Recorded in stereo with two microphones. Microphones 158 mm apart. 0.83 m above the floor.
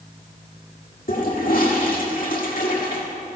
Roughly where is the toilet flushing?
Left.